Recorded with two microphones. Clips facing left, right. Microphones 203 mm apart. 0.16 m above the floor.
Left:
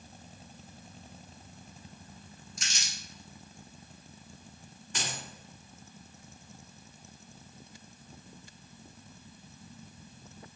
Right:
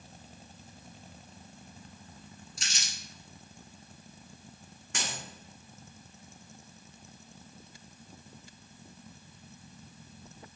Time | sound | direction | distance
2.6 | crumpling | 35° right (ahead or behind) | 1.3 m
4.9 | a dropped coin | 85° right | 1.7 m